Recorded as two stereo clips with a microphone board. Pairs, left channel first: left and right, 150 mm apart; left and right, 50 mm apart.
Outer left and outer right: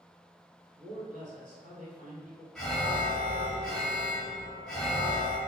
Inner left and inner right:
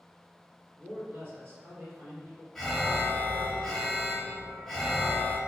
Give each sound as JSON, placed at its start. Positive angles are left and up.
{"t": 0.8, "sound": "a man speaking", "side_deg": -55, "distance_m": 1.6}
{"t": 2.5, "sound": "an alarm", "side_deg": 5, "distance_m": 1.1}